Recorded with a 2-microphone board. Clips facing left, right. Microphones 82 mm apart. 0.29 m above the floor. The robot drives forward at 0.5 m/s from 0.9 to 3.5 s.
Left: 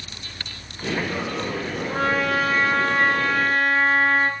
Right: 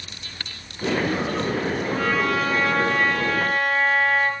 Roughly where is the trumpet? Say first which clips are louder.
Left 3 dB; left.